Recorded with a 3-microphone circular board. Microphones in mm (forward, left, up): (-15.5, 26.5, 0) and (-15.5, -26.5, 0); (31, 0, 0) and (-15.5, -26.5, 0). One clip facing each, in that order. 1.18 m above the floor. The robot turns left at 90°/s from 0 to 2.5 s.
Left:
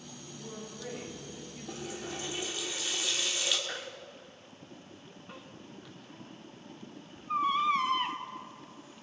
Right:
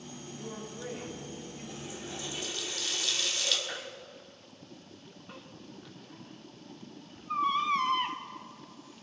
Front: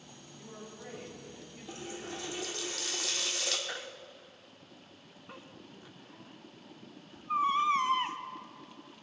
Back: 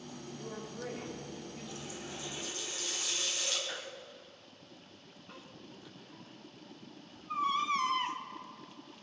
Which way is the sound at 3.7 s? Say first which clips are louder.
Even, front 1 dB; 15° left.